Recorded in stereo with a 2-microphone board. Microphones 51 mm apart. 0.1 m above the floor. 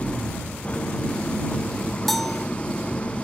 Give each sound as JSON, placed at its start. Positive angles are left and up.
{"t": 0.0, "sound": "an engine running", "side_deg": 20}
{"t": 2.1, "sound": "a bell", "side_deg": 0}